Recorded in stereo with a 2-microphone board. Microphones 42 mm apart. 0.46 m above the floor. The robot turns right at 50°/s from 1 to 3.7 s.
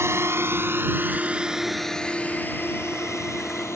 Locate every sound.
0.0 s a drone: 70° right (ahead or behind); by 3.8 s 70° left (ahead or behind)